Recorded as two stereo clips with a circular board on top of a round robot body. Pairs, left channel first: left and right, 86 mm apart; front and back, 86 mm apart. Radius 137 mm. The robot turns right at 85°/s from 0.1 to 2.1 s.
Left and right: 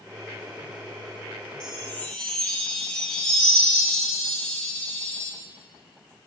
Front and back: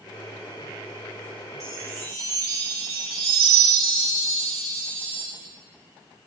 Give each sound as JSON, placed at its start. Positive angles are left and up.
{"t": 1.6, "sound": "a chime", "azimuth_deg": 130, "distance_m": 9.0}